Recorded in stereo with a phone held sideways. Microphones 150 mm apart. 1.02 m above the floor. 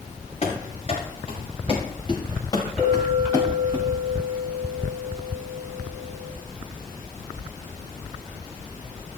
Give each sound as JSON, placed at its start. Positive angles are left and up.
{"t": 0.4, "sound": "running footsteps", "side_deg": 50, "distance_m": 6.0}
{"t": 2.8, "sound": "a clink", "side_deg": 0, "distance_m": 6.5}